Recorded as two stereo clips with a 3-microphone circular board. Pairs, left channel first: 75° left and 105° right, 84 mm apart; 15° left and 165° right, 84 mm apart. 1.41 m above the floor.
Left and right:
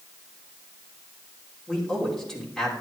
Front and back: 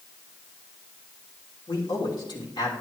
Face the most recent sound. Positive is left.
turn(degrees=-5)